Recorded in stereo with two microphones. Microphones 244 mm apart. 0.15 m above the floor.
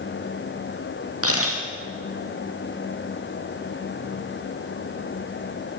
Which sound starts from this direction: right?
A camera shutter, at 1.2 s.